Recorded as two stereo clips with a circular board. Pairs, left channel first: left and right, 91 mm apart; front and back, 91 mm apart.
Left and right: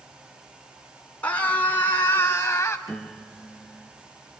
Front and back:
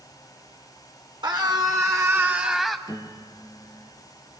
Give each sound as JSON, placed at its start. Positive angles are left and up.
{"t": 1.2, "sound": "a scream", "azimuth_deg": 160, "distance_m": 2.5}
{"t": 2.9, "sound": "a piano", "azimuth_deg": 5, "distance_m": 2.0}